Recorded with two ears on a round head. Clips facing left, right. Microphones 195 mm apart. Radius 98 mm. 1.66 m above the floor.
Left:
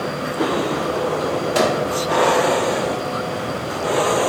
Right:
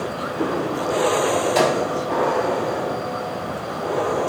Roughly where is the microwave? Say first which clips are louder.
Left 1 dB; centre.